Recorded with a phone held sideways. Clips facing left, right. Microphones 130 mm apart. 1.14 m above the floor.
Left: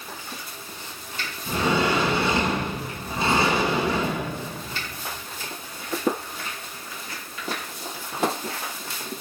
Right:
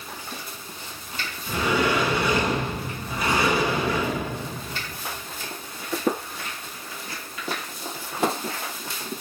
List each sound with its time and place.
1.5 s a sliding door: 25° left (ahead or behind), 9.5 m